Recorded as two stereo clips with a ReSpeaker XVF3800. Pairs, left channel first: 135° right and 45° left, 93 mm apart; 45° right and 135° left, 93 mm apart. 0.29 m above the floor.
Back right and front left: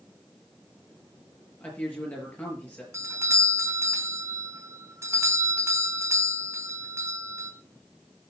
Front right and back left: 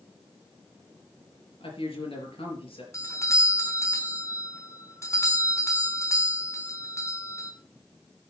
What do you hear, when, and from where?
1.6 s a man speaking: 60° right, 5 m
2.9 s a doorbell: straight ahead, 2.5 m